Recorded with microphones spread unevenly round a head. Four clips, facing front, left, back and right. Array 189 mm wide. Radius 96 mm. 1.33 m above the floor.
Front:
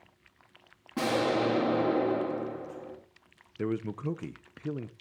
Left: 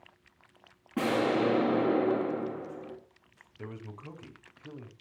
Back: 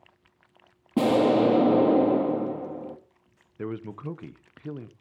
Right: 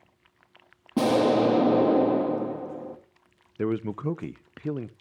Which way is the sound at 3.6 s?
80° right.